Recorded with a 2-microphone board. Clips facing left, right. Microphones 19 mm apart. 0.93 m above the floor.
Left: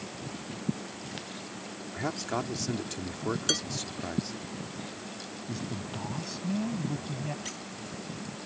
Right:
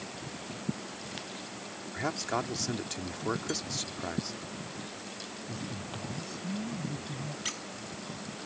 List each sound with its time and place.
1.9 s a man speaking: 5° right (ahead or behind)
3.5 s dishes clattering: 50° left (ahead or behind)
5.5 s a man speaking: 30° left (ahead or behind)
7.5 s a squeak: 25° right (ahead or behind)